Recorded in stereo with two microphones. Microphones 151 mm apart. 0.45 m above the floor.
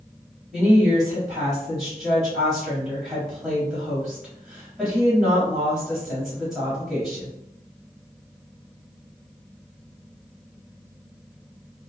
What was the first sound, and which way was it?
A woman speaking, centre (ahead or behind).